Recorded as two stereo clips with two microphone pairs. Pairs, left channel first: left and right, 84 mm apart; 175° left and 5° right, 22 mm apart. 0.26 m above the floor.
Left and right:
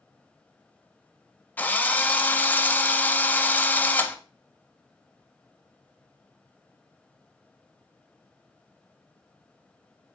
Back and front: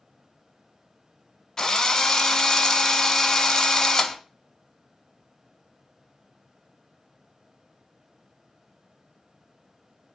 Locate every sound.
1.6 s a drill: 140° left, 0.5 m